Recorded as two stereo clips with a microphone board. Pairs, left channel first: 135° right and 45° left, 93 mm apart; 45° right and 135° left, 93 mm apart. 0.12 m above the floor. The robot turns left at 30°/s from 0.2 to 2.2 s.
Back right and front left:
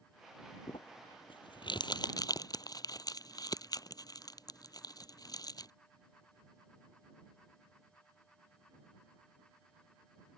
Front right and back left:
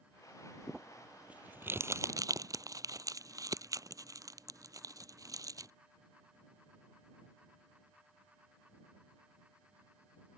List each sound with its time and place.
0.7 s crumpling: 130° right; by 5.7 s 175° right